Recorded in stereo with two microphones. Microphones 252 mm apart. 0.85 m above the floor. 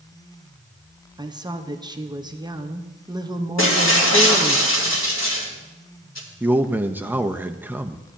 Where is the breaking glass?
80° left, 2 m.